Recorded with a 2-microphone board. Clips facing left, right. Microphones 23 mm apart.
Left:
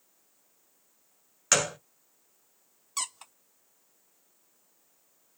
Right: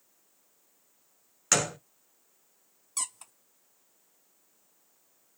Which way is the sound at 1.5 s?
10° left (ahead or behind).